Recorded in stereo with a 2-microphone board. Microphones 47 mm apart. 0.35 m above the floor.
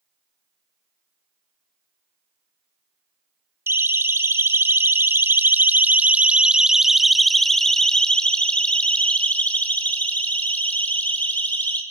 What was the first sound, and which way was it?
A siren, 60° right (ahead or behind).